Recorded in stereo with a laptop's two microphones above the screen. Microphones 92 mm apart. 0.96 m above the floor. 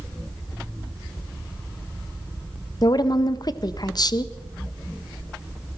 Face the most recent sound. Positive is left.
turn(degrees=50)  # may be behind; listen again after turning